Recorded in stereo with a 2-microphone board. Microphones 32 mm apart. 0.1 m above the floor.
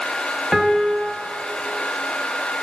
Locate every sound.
0.5 s a piano: 10° right (ahead or behind), 1.4 m